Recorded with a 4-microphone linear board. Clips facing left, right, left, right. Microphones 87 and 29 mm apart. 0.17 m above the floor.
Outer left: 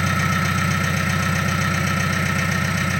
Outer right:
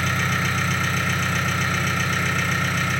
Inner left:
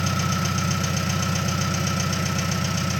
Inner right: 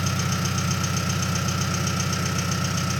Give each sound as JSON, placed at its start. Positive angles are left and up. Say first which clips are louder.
{"t": 0.0, "sound": "an engine running", "louder": "outer left 2 dB, inner left 2 dB", "side_deg": 5, "distance_m": 1.4}